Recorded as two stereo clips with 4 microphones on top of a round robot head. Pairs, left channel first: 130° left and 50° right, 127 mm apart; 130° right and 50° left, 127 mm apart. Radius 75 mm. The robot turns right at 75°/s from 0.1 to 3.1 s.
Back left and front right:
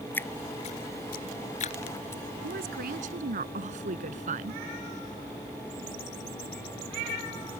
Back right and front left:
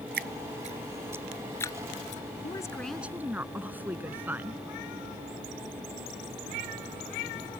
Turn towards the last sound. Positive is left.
turn(degrees=-25)